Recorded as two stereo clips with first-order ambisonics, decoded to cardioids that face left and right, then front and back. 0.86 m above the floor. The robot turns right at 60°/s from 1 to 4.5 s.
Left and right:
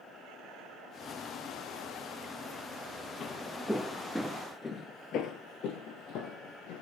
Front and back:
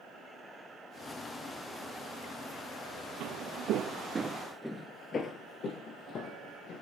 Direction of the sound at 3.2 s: 150° left.